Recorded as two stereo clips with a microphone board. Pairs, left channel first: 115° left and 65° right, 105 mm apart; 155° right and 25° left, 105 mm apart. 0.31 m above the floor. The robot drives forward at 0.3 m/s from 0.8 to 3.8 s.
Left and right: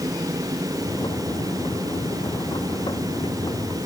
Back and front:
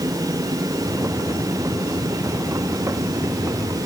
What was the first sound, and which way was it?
Only background noise.